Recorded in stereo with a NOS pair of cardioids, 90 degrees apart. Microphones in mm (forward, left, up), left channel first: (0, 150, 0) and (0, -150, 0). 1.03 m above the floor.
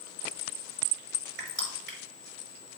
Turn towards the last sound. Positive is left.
turn(degrees=-40)